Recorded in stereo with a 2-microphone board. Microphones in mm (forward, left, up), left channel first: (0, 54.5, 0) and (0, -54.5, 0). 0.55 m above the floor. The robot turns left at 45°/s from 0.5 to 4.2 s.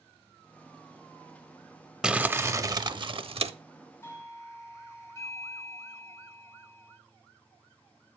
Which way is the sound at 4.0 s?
25° left (ahead or behind).